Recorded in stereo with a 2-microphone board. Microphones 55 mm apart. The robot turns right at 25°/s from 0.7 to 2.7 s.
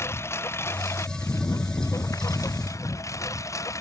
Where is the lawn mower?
55° left (ahead or behind); by 3.8 s 80° left.